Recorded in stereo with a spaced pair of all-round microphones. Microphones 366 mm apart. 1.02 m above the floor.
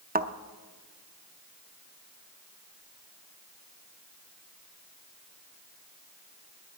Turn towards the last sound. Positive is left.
turn(degrees=-25)  # may be behind; listen again after turning